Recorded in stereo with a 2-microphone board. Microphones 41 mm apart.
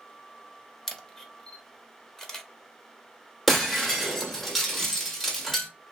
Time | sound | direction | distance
0.9 | a camera shutter | 15° left (ahead or behind) | 0.6 m
3.5 | breaking glass | 10° left (ahead or behind) | 1.2 m